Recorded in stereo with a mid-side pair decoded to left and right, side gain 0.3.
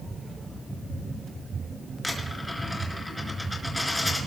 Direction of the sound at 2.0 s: 10° left.